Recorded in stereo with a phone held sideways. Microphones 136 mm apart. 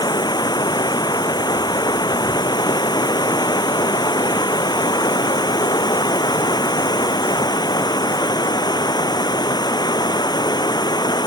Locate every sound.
0.0 s running water: 30° left (ahead or behind)